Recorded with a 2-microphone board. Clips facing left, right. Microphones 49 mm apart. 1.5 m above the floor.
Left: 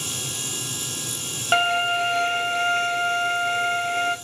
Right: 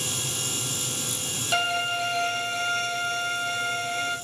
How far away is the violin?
About 0.8 m.